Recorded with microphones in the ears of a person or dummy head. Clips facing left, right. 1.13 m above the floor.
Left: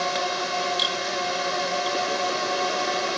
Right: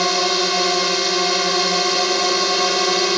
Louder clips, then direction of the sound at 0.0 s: Right 7 dB; 75° right (ahead or behind).